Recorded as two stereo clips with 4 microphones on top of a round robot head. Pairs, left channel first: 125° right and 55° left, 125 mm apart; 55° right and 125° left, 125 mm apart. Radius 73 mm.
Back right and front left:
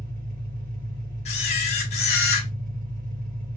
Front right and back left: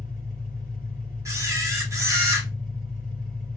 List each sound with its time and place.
0.0 s an engine running: 60° left, 2 m
1.2 s a camera shutter: 165° right, 1.5 m